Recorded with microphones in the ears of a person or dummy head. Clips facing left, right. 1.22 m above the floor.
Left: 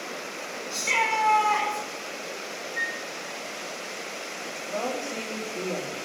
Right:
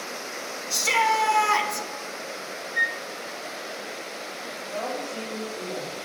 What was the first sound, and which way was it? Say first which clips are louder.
A shout: right 5 dB; 70° right (ahead or behind).